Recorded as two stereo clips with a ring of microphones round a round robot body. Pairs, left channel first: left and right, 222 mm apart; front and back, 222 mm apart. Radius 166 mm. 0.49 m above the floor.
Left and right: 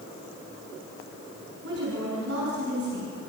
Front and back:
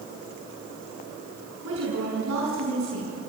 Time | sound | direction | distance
1.6 | a woman speaking | 140° right | 7 m